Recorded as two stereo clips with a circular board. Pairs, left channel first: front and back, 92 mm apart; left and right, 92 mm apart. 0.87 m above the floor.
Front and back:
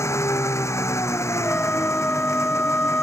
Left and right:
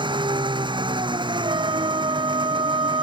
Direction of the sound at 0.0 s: 60° right.